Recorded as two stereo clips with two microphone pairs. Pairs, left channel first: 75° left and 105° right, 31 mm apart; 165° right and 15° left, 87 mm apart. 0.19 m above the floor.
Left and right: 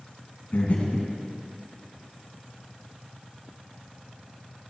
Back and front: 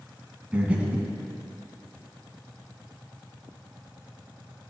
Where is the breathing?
85° left, 2 m.